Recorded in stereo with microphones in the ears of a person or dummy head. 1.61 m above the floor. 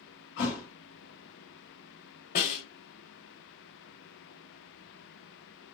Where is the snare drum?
35° left (ahead or behind), 0.9 m.